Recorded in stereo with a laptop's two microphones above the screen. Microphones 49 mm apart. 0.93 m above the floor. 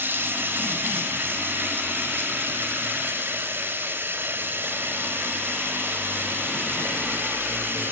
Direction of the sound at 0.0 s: 45° right (ahead or behind).